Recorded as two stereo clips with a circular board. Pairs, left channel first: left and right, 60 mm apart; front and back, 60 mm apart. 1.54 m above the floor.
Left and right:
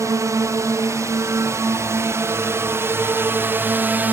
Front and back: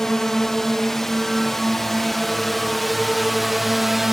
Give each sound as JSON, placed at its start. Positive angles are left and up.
{"t": 0.0, "sound": "a drone", "azimuth_deg": -80}